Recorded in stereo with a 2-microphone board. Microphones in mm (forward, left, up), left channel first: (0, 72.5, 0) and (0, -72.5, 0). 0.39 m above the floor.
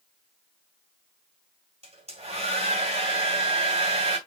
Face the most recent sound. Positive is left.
turn(degrees=-45)  # may be behind; listen again after turning